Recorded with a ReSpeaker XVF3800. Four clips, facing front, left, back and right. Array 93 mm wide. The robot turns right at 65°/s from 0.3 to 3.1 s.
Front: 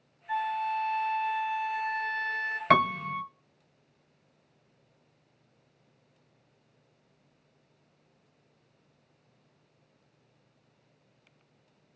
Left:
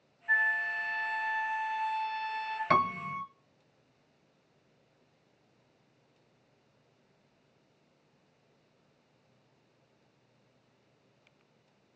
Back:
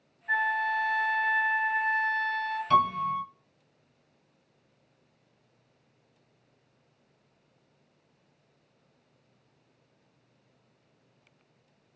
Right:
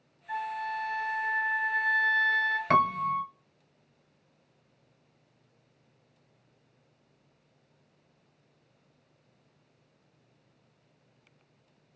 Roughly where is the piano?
Ahead.